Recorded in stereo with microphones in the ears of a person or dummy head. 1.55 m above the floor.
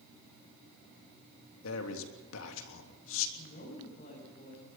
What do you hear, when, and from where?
1.6 s a man speaking: 70° left (ahead or behind), 3 m
3.4 s a woman speaking: 45° left (ahead or behind), 7.5 m